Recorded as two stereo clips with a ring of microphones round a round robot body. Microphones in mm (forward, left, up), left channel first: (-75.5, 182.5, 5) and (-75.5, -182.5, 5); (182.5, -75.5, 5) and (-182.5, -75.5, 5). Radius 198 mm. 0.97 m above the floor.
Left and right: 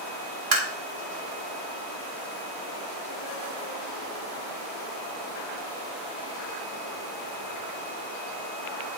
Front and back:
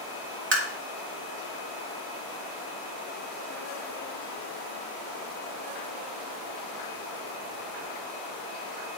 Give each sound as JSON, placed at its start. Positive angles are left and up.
{"t": 0.5, "sound": "tapping", "azimuth_deg": -120, "distance_m": 3.5}